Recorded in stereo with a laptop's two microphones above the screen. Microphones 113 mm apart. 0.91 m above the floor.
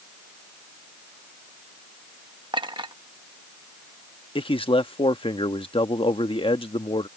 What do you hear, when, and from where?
2.5 s a clink: 40° right (ahead or behind)
4.3 s a man speaking: 50° left (ahead or behind)